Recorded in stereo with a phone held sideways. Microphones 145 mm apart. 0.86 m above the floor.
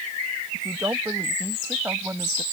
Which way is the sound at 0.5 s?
25° right (ahead or behind).